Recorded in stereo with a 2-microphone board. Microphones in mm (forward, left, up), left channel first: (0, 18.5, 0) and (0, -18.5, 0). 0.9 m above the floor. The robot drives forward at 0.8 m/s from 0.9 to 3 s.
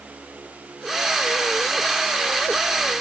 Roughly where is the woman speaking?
No woman speaking in this recording.